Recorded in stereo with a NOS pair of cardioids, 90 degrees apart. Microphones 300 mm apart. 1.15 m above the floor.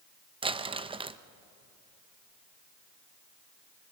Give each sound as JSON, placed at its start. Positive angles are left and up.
{"t": 0.4, "sound": "crumpling", "azimuth_deg": -15, "distance_m": 0.7}